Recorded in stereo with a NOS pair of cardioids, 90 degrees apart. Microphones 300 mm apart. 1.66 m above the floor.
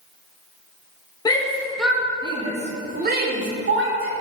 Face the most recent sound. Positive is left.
turn(degrees=-45)